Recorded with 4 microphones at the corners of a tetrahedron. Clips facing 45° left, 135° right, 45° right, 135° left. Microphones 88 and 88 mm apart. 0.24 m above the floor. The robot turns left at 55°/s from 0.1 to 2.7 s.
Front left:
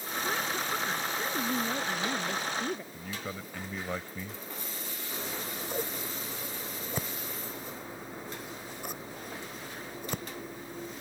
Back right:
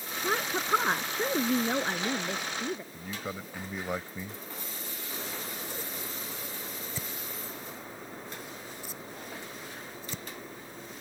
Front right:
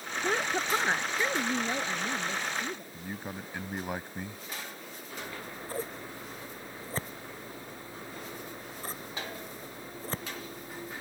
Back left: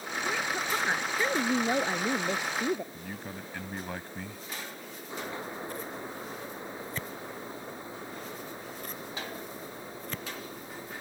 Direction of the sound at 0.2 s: 90° right.